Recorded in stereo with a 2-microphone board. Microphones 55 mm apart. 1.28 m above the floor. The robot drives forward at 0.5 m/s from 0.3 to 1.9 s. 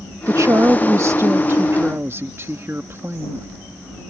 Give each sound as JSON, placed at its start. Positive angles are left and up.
{"t": 0.3, "sound": "a woman speaking", "side_deg": -65}